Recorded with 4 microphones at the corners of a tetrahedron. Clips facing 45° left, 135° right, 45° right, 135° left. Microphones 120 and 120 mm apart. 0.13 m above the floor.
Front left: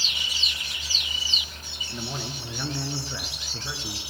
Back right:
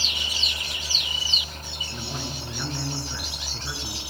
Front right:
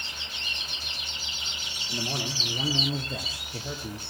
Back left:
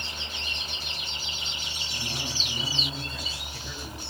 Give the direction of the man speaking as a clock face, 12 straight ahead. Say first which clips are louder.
Front left 1 dB, front right 5 dB; 1 o'clock.